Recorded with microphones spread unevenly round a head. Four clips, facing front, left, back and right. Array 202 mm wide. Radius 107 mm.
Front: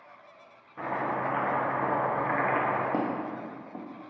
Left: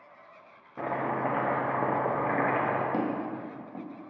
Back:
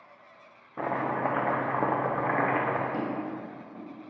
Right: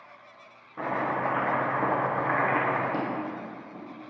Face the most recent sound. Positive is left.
turn(degrees=15)